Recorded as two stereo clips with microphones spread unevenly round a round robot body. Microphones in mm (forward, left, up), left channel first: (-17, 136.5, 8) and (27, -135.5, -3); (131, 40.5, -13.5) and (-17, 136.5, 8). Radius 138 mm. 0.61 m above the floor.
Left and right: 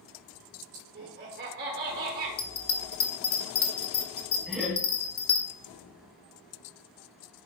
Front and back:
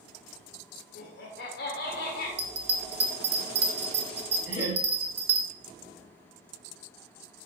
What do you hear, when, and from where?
0.9 s laughter: 30° right, 1.6 m
2.4 s a bell: 150° left, 1.0 m
4.5 s laughter: 10° left, 3.5 m